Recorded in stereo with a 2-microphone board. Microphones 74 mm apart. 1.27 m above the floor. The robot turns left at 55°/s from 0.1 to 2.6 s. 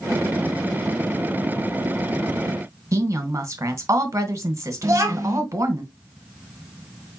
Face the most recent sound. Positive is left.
turn(degrees=-40)  # may be behind; listen again after turning